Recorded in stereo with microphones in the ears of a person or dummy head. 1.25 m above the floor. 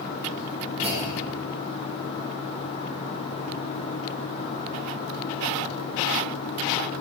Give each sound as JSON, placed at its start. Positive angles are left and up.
{"t": 0.8, "sound": "a clunk", "side_deg": -35, "distance_m": 7.5}